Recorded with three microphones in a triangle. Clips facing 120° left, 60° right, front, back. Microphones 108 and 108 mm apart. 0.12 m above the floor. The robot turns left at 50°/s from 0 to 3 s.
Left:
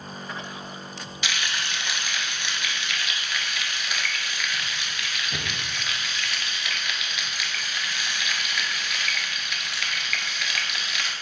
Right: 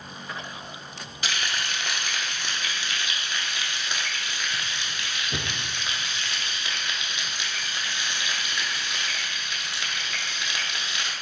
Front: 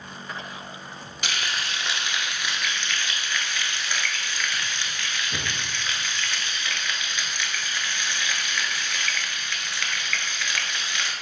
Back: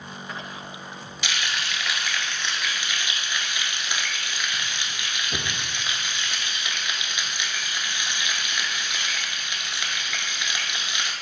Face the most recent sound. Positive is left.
turn(degrees=-110)